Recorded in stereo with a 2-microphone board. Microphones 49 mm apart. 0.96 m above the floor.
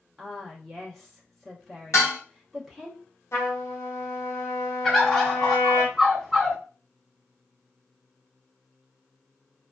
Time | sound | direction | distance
0.2 | a woman speaking | 10° left (ahead or behind) | 0.9 m
1.9 | dishes clattering | 85° left | 1.2 m
3.3 | a trumpet | 65° left (ahead or behind) | 1.1 m
4.8 | a bird | 5° left (ahead or behind) | 1.0 m